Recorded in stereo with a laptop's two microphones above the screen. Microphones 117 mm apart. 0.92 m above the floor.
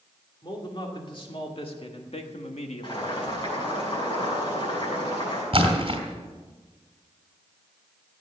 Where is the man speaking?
40° left (ahead or behind), 2.5 m; by 3.1 s 70° left (ahead or behind), 1.3 m.